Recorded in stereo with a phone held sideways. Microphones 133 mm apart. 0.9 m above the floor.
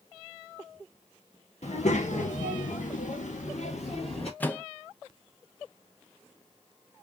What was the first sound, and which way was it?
A child speaking, 60° left (ahead or behind).